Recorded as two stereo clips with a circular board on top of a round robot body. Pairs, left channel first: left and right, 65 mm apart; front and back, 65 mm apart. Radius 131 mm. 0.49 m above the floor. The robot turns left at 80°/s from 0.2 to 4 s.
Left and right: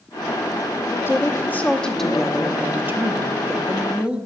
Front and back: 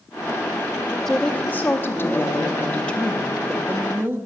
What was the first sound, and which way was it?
A woman speaking, 85° left.